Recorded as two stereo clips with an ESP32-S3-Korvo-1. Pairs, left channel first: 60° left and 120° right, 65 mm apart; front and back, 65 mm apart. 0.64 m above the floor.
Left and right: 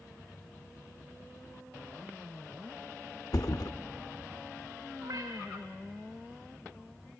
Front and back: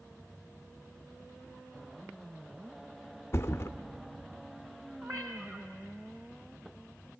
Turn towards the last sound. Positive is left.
turn(degrees=-135)